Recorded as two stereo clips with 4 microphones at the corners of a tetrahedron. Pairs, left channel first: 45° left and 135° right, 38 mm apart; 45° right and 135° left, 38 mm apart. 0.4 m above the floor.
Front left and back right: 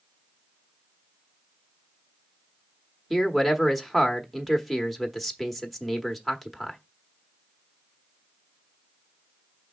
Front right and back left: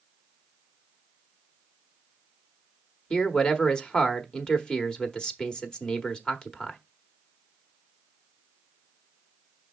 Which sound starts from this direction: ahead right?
A man speaking, at 3.1 s.